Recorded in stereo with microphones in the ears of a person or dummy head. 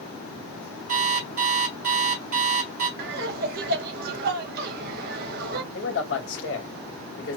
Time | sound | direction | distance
0.9 | an alarm clock | 50° right (ahead or behind) | 1.3 m
3.0 | laughter | 55° right (ahead or behind) | 1.2 m
5.7 | a man speaking | 70° left (ahead or behind) | 1.9 m